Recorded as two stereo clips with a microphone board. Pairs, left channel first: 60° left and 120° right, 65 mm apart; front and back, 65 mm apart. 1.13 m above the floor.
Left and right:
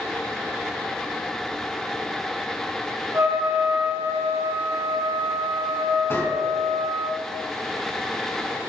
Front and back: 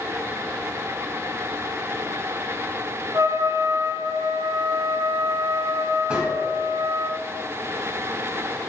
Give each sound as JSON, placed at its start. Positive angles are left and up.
{"t": 3.1, "sound": "a trumpet", "azimuth_deg": -165, "distance_m": 1.4}
{"t": 6.1, "sound": "a gunshot", "azimuth_deg": 105, "distance_m": 2.5}